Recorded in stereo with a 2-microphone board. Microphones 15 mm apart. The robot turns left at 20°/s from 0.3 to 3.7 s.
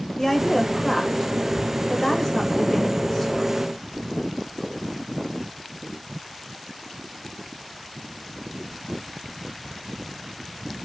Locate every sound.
0.2 s a woman speaking: 15° left (ahead or behind), 0.9 m; by 3.6 s 20° left (ahead or behind), 0.9 m